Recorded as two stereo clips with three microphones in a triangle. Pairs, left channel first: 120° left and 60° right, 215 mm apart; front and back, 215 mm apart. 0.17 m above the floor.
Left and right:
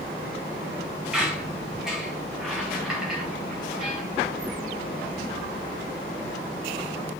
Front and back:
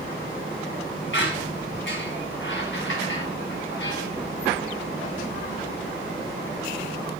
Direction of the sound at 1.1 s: 25° left.